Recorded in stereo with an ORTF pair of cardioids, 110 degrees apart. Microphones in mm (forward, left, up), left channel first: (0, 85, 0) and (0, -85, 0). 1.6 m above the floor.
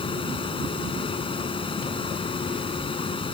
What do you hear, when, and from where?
0.0 s a fan: 30° left